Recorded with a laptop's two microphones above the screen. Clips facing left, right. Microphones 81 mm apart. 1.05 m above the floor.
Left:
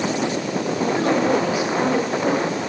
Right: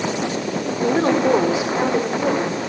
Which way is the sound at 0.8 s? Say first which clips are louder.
Right 3 dB; 45° right (ahead or behind).